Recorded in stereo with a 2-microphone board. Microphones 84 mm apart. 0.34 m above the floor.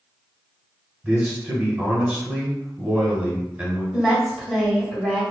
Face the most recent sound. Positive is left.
turn(degrees=-5)  # may be behind; listen again after turning